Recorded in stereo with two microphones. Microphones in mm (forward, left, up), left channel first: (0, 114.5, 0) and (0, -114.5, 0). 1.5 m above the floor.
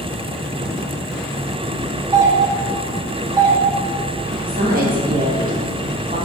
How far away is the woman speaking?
About 1.7 m.